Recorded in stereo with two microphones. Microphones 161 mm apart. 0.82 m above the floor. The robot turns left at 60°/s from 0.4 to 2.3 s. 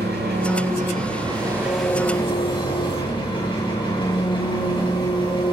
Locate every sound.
0.0 s an engine running: 95° right, 5 m; by 5.5 s 150° left, 5 m